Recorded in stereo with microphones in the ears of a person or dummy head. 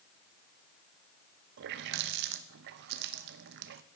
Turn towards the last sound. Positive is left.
turn(degrees=-60)  # may be behind; listen again after turning